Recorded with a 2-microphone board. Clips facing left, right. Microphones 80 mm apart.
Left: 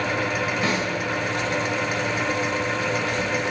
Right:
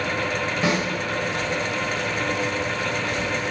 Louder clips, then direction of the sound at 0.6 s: Right 4 dB; 20° right (ahead or behind).